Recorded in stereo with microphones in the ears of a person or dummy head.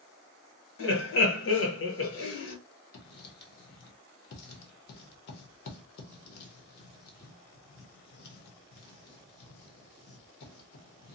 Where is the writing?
60° left (ahead or behind), 0.8 m.